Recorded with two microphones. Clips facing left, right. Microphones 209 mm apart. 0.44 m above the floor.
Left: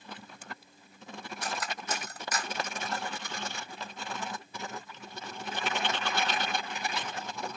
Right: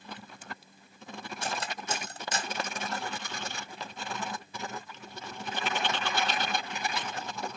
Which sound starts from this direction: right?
Cutlery clinking, at 1.4 s.